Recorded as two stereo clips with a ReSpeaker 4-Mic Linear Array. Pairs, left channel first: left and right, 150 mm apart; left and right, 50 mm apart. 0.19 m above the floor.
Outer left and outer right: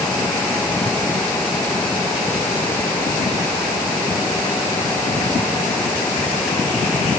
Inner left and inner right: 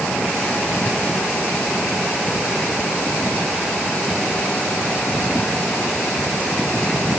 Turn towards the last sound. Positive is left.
No sound to turn to.